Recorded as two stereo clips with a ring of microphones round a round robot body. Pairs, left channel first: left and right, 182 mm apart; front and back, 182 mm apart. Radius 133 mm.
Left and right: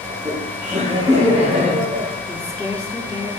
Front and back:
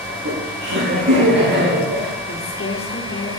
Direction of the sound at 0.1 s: 165° right.